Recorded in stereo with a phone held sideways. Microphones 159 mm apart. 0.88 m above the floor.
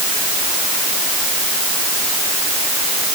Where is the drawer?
I don't hear a drawer.